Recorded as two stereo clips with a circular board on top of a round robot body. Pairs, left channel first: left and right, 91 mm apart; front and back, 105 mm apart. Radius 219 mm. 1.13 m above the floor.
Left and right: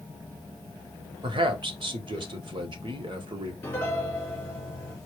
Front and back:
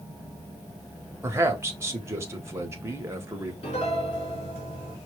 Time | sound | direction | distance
1.2 | a man speaking | 115° right | 1.2 m
3.6 | a piano | 25° left | 2.5 m